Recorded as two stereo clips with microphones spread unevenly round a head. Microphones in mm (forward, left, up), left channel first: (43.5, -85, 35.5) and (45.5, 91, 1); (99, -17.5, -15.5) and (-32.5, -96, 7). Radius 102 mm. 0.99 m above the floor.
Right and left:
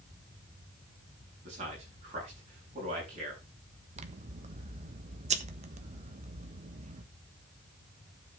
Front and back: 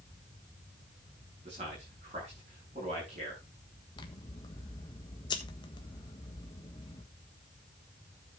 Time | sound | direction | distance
1.4 | a man speaking | 150° left | 9 m
4.0 | scissors | 80° left | 1.2 m